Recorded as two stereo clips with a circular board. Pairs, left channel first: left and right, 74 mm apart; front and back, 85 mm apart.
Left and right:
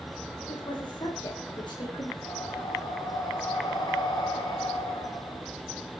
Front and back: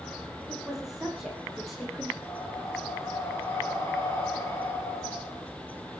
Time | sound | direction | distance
0.5 | a woman speaking | 95° left | 9 m
2.2 | breathing | 70° left | 5.5 m